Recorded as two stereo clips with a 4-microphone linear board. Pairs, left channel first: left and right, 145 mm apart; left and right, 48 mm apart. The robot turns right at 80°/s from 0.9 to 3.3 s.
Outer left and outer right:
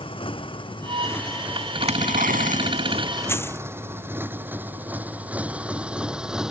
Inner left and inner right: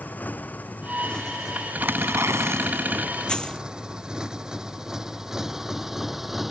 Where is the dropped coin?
15° left (ahead or behind); by 3.7 s 20° left (ahead or behind).